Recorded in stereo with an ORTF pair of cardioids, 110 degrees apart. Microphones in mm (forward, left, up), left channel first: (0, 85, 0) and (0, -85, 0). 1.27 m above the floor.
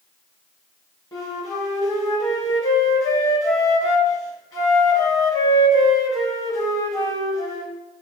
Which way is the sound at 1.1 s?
20° left.